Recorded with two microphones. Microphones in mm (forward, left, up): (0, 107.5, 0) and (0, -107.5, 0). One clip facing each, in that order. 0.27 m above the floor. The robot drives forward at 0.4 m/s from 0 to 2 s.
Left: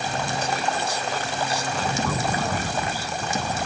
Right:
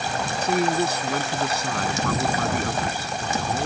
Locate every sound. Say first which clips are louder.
0.4 s a man speaking: right 5 dB; 60° right (ahead or behind)